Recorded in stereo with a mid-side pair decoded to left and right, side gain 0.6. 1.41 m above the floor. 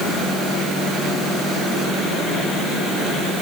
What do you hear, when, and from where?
Only background noise.